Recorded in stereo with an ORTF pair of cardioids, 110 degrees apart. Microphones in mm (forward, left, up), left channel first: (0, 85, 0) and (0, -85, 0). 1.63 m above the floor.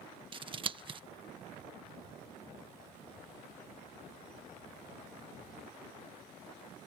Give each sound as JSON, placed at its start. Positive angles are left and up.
{"t": 0.3, "sound": "scissors", "azimuth_deg": -30}